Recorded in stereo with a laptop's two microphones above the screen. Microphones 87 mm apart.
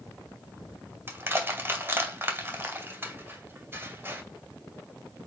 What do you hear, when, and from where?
1.1 s crushing: 25° right (ahead or behind), 2.5 m